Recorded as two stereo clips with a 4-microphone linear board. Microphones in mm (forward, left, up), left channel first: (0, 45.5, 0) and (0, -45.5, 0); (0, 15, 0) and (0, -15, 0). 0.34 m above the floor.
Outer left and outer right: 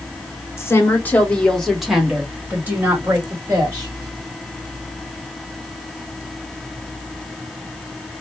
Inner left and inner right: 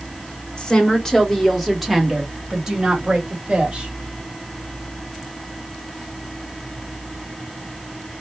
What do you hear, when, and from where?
0.6 s a woman speaking: 30° left (ahead or behind), 1.2 m; by 3.9 s 35° right (ahead or behind), 2 m